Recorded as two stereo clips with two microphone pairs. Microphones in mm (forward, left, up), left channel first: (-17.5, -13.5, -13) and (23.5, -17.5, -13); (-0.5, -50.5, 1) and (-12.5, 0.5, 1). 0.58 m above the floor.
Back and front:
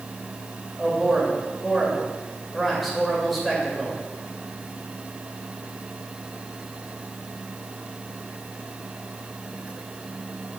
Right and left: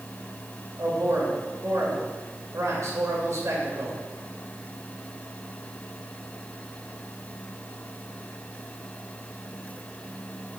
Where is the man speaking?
90° left, 1.8 m.